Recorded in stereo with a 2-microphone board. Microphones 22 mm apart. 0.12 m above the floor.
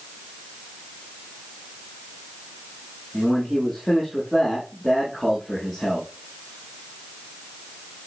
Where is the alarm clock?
I don't hear an alarm clock.